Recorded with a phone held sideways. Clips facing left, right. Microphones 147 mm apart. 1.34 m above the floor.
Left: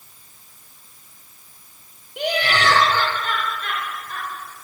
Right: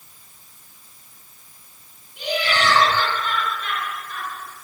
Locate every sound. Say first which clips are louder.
2.2 s laughter: left 1 dB; 70° left (ahead or behind), 3.5 m; by 4.3 s 45° left (ahead or behind), 6 m